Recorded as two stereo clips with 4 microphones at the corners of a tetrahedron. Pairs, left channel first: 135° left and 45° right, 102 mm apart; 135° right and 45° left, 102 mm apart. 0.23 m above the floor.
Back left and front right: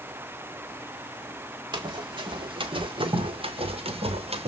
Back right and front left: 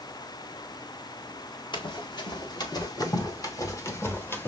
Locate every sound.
1.7 s running footsteps: 95° right, 2.5 m; by 4.5 s 65° right, 1.6 m